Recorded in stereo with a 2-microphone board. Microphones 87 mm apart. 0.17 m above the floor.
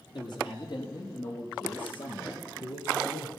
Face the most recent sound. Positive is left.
turn(degrees=70)  # may be behind; listen again after turning